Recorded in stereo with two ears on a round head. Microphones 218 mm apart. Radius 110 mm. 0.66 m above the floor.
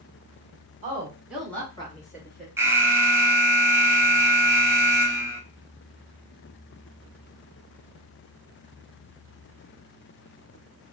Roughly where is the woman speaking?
Right.